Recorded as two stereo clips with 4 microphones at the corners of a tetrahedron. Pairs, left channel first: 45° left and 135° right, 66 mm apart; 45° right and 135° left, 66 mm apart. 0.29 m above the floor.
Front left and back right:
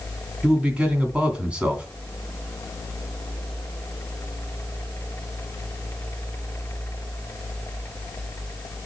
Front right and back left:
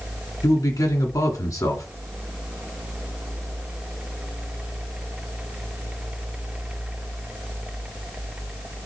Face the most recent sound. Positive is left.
turn(degrees=-65)